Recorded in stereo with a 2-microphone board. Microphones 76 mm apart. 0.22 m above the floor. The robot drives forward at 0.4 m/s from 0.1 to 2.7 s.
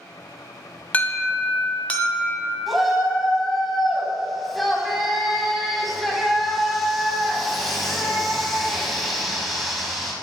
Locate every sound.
0.9 s an alarm: 25° left (ahead or behind), 0.6 m; by 2.6 s 15° left (ahead or behind), 1.0 m
2.7 s a shout: centre (ahead or behind), 1.2 m